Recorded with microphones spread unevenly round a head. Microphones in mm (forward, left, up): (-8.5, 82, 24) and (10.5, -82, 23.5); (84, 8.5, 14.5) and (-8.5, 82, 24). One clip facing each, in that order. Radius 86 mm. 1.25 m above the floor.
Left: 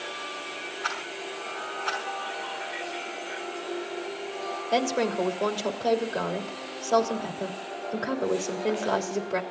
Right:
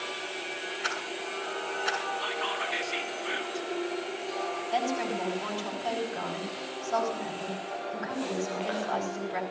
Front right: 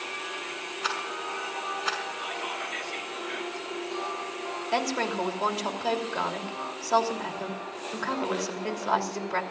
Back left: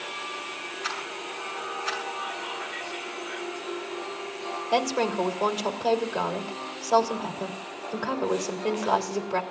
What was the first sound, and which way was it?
A rattle, 10° right.